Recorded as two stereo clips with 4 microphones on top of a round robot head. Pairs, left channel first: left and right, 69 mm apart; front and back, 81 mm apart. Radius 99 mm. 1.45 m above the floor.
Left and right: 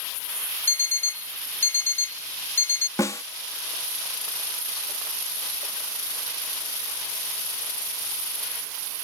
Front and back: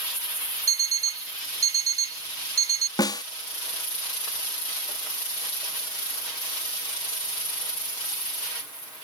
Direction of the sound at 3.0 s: 35° left.